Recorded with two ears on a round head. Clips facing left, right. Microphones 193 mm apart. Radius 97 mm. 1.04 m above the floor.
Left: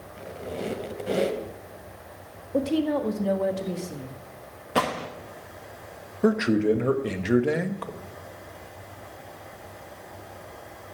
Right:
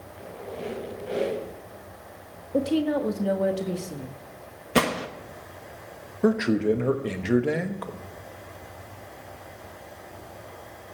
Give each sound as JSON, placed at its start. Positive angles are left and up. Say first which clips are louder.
{"t": 0.2, "sound": "a squeak", "louder": "left 3 dB", "side_deg": 60, "distance_m": 2.5}
{"t": 2.5, "sound": "a woman speaking", "louder": "even", "side_deg": -5, "distance_m": 1.4}
{"t": 4.8, "sound": "a gunshot", "louder": "right 3 dB", "side_deg": -30, "distance_m": 1.3}
{"t": 6.2, "sound": "a man speaking", "louder": "left 1 dB", "side_deg": 5, "distance_m": 1.1}